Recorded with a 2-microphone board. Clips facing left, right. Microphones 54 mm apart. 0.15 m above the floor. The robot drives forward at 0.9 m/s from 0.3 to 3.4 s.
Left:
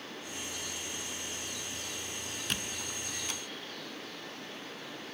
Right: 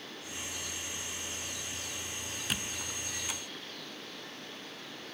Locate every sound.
2.5 s a squeak: 5° right (ahead or behind), 0.7 m; by 3.4 s 10° right (ahead or behind), 0.6 m